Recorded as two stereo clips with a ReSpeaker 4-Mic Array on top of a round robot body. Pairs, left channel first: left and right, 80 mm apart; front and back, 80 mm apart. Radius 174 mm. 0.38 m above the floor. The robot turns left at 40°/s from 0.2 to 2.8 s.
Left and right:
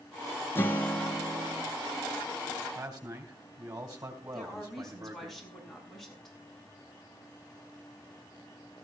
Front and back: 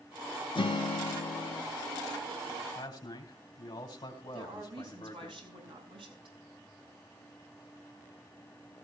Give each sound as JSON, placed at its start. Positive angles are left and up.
{"t": 0.6, "sound": "a guitar", "azimuth_deg": 25, "distance_m": 1.5}
{"t": 2.8, "sound": "a man speaking", "azimuth_deg": -40, "distance_m": 3.5}
{"t": 4.3, "sound": "a woman speaking", "azimuth_deg": 180, "distance_m": 6.5}